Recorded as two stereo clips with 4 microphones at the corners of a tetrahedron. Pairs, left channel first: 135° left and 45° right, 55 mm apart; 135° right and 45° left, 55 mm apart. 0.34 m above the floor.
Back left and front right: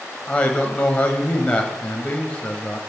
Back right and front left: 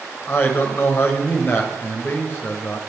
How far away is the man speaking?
About 1.6 m.